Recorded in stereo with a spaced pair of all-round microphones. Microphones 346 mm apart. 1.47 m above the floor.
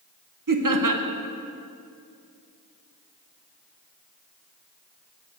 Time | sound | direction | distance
0.5 | laughter | 65° right (ahead or behind) | 0.9 m